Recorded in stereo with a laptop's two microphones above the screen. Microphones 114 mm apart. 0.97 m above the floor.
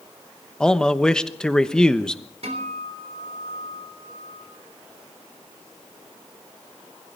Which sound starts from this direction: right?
A guitar, at 2.4 s.